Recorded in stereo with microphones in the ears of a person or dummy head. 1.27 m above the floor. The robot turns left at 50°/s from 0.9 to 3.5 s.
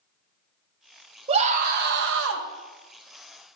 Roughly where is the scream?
Ahead right.